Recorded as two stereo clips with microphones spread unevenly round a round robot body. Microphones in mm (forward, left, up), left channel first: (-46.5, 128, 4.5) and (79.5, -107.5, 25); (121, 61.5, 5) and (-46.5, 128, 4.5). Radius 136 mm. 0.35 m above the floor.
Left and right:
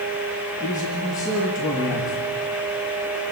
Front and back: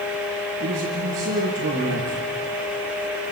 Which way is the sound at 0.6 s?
160° right.